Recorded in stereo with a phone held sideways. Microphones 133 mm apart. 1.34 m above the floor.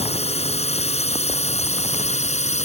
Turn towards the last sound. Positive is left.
turn(degrees=55)  # may be behind; listen again after turning